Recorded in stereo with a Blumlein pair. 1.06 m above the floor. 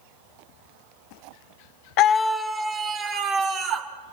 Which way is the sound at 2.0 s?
40° left.